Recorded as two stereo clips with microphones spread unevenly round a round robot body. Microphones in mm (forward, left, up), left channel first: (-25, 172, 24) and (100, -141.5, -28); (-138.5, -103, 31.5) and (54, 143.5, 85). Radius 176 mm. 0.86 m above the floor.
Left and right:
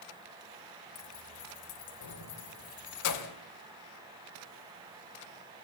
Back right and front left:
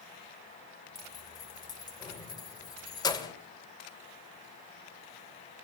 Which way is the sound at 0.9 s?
155° left.